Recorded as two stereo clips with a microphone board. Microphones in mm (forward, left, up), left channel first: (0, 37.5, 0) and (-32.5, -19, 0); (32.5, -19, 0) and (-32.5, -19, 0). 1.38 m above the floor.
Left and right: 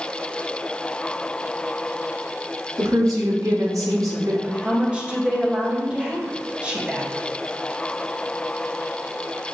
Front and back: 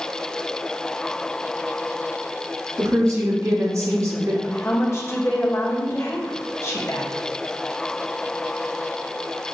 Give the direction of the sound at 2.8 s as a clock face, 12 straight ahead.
5 o'clock.